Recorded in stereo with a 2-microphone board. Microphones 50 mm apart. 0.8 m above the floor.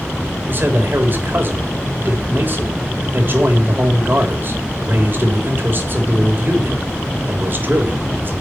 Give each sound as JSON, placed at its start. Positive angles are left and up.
{"t": 0.5, "sound": "a man speaking", "side_deg": -45, "distance_m": 3.5}